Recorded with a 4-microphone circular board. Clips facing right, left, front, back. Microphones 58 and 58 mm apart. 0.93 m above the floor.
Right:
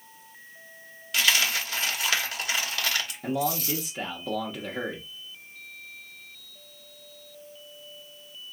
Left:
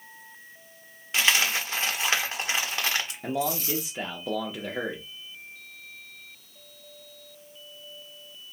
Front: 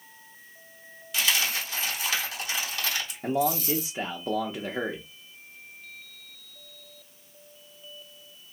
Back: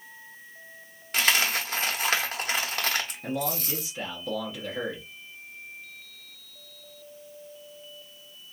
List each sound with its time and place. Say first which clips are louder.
1.1 s a dropped coin: left 1 dB, back 3 dB; 150° left, 0.8 m
3.2 s a man speaking: right 2 dB, front 5 dB; 20° left, 0.7 m